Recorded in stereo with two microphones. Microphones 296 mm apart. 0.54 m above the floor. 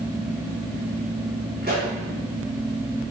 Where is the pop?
35° right (ahead or behind), 4 m.